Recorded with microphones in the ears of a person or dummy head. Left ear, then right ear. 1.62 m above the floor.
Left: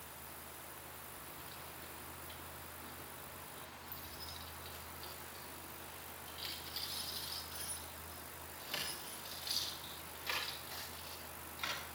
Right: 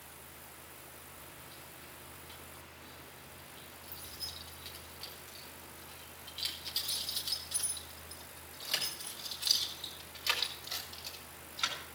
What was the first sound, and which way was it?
Keys jangling, 15° left (ahead or behind).